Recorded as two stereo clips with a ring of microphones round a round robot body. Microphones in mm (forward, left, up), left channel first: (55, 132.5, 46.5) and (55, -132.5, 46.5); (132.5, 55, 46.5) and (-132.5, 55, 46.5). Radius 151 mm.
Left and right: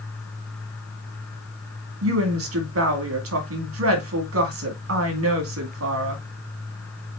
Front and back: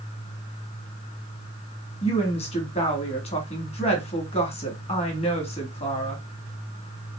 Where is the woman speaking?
65° right, 2.5 m.